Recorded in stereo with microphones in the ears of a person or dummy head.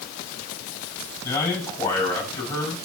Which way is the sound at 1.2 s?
20° left (ahead or behind).